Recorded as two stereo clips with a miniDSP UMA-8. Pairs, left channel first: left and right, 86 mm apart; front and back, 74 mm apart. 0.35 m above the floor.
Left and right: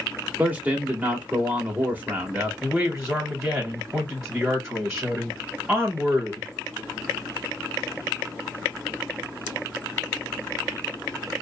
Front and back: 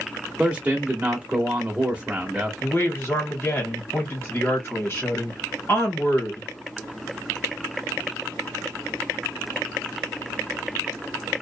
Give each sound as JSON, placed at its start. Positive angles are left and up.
{"t": 0.4, "sound": "a man speaking", "azimuth_deg": -130, "distance_m": 0.9}
{"t": 2.6, "sound": "a man speaking", "azimuth_deg": -20, "distance_m": 1.4}